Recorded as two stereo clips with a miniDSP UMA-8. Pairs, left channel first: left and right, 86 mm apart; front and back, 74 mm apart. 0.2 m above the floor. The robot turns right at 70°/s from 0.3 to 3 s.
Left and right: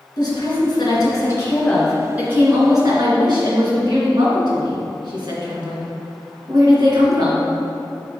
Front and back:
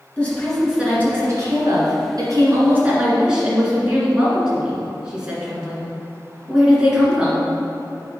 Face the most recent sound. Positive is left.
turn(degrees=-105)